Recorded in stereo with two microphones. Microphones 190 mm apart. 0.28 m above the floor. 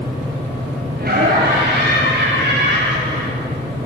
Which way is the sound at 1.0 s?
55° right (ahead or behind).